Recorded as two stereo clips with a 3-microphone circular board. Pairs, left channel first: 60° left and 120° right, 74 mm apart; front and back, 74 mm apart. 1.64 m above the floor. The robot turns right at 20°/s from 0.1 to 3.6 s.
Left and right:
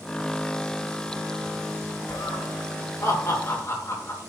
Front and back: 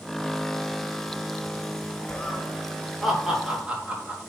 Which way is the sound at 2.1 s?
75° left.